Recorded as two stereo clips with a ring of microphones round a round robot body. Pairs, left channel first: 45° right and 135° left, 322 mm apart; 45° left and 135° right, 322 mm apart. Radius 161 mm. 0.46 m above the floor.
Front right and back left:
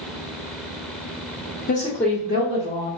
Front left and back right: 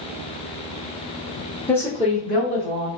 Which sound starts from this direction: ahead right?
A woman speaking, at 1.7 s.